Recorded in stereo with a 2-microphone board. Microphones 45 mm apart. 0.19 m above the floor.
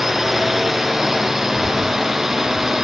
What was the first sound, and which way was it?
A drone, 5° right (ahead or behind).